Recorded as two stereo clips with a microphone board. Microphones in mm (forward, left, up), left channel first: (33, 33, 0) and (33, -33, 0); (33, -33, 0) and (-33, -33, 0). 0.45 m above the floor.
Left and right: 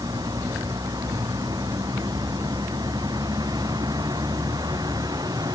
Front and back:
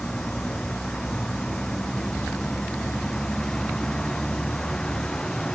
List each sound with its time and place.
0.0 s a vehicle: 80° right